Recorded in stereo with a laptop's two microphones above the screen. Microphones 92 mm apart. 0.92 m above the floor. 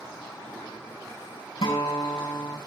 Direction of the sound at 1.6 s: 85° left.